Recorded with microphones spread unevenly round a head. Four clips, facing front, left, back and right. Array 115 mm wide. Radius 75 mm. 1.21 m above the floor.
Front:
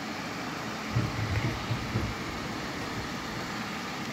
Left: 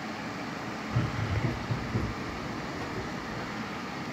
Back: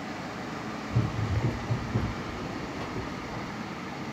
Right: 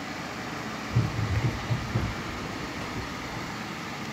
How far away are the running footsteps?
About 1.5 m.